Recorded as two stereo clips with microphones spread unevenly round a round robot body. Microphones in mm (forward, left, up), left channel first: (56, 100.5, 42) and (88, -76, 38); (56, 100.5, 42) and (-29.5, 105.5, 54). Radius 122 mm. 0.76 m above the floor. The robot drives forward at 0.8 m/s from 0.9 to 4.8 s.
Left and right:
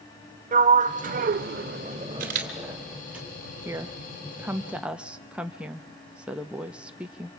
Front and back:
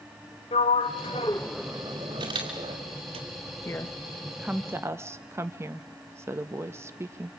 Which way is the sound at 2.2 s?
130° right.